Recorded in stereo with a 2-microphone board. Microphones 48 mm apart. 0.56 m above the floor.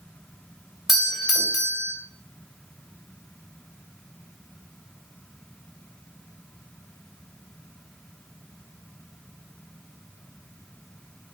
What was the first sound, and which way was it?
A doorbell, 5° right (ahead or behind).